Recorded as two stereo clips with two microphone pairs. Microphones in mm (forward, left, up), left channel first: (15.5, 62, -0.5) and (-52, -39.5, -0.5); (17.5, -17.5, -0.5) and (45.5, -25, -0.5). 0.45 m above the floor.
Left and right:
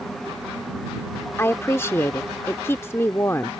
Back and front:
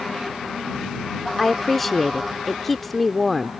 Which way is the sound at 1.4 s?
75° left.